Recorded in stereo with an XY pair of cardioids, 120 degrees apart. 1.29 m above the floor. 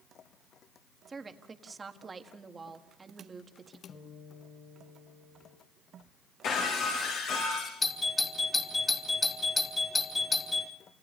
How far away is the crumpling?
I don't hear crumpling.